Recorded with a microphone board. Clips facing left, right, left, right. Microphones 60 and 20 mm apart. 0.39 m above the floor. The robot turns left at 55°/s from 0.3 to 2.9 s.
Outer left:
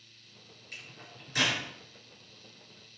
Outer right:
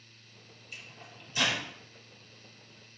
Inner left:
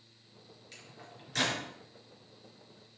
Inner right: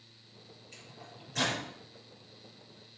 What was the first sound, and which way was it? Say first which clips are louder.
A microwave: even, even; 65° left (ahead or behind).